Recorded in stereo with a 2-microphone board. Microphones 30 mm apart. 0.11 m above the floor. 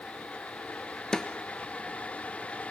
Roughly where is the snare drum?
Left.